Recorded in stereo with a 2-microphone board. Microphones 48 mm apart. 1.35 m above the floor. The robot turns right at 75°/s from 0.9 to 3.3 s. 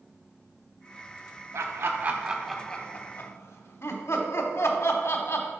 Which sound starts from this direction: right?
Laughter, at 1.5 s.